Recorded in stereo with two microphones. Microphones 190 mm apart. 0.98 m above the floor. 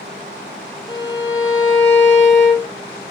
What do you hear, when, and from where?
0.9 s a violin: 75° left (ahead or behind), 1.2 m